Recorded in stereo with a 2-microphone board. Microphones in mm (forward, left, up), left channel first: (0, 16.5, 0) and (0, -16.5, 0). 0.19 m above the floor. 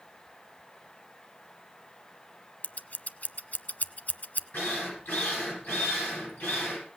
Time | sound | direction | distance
2.6 | scissors | 50° left (ahead or behind) | 0.6 m
4.5 | a drill | 70° left (ahead or behind) | 9 m